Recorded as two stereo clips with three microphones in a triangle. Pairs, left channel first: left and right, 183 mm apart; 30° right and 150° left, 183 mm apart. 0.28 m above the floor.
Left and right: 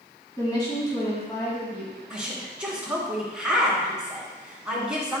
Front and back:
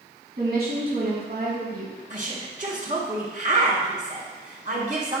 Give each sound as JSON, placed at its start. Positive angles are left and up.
{"t": 0.4, "sound": "a woman speaking", "azimuth_deg": 155, "distance_m": 2.5}
{"t": 2.1, "sound": "a woman speaking", "azimuth_deg": -175, "distance_m": 2.0}